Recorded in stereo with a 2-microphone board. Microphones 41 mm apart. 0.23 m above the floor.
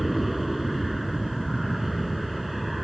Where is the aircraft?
Centre (ahead or behind).